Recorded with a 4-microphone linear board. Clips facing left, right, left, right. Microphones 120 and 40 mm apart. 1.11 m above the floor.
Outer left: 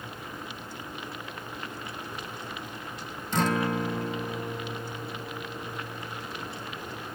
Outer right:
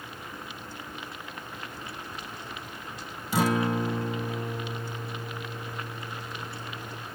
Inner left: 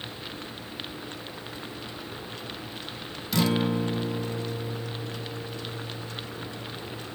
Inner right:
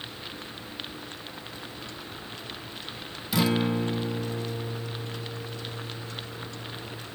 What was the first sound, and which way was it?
A guitar, 10° right (ahead or behind).